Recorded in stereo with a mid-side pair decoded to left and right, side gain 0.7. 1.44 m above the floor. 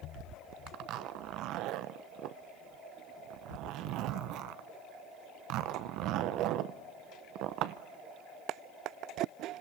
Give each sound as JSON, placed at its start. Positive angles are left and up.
{"t": 0.7, "sound": "a zipper", "azimuth_deg": -60, "distance_m": 0.8}